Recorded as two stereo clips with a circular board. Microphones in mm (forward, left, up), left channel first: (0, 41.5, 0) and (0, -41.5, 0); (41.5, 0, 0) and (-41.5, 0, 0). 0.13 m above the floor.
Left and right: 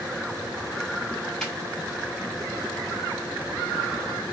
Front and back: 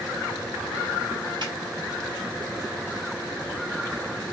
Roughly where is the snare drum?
Behind.